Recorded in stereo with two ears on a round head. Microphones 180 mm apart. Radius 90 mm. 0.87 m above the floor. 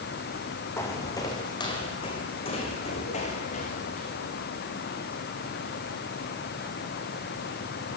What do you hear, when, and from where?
0.8 s footsteps: 15° left (ahead or behind), 3.5 m; by 4.1 s 40° left (ahead or behind), 5.5 m